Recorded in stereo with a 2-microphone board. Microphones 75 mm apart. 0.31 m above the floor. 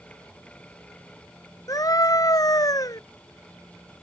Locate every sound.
1.7 s a scream: 50° left (ahead or behind)